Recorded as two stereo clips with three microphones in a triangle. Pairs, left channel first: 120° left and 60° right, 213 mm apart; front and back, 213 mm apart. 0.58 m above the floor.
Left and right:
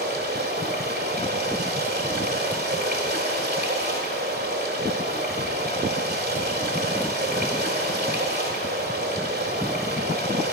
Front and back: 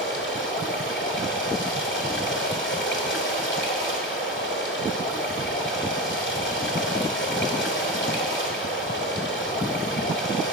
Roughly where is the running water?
Ahead.